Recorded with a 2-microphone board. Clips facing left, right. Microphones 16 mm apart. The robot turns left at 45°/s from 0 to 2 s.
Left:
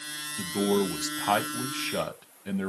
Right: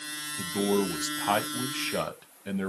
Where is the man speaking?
15° left (ahead or behind), 1.0 m; by 2.7 s 5° right (ahead or behind), 1.0 m.